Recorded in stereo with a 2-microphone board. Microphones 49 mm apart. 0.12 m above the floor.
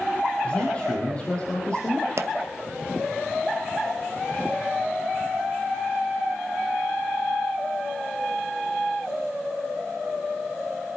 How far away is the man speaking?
About 3.5 m.